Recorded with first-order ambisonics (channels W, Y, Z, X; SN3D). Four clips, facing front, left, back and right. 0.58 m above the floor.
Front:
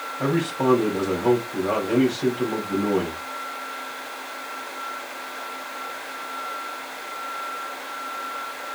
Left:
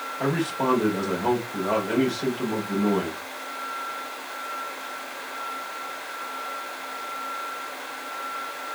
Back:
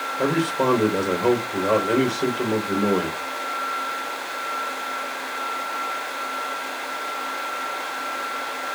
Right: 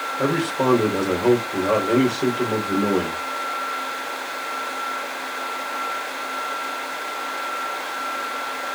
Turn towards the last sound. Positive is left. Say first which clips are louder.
# right 4 dB, back 1 dB
turn(degrees=-130)